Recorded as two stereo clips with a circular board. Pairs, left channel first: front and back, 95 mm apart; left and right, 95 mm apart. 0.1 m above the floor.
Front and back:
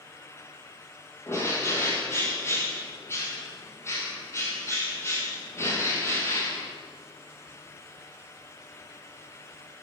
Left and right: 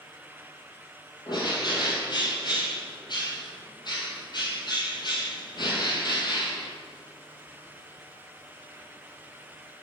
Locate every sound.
1.3 s a bird: 60° left, 1.4 m